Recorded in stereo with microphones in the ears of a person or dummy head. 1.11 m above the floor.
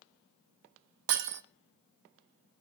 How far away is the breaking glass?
About 1.1 m.